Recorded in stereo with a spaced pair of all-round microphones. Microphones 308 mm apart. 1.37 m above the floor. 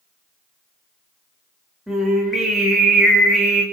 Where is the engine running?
No engine running in this recording.